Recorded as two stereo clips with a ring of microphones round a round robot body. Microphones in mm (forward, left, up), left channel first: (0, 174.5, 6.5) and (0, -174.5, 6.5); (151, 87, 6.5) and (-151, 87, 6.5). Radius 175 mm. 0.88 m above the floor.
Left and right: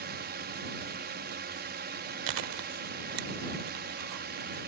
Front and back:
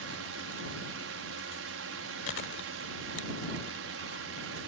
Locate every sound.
0.0 s a drone: 145° right
2.3 s chewing: 60° right